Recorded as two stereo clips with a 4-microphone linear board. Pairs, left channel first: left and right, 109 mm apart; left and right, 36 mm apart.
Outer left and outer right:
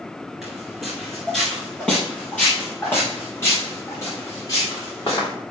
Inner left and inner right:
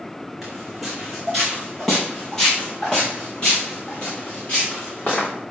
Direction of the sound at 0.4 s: 5° right (ahead or behind).